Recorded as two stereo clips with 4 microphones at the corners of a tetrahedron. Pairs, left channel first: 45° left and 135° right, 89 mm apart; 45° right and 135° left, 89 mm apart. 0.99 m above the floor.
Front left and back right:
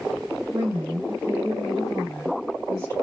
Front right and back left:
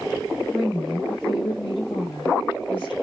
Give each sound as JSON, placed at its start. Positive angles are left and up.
{"t": 0.5, "sound": "a woman speaking", "azimuth_deg": -135, "distance_m": 0.9}